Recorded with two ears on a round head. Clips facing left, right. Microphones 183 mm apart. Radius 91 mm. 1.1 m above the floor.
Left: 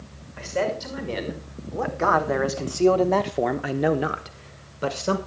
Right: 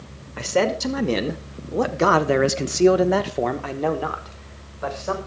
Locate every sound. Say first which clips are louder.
0.4 s a man speaking: right 5 dB; 70° right (ahead or behind), 2 m; by 5.2 s 45° left (ahead or behind), 1.7 m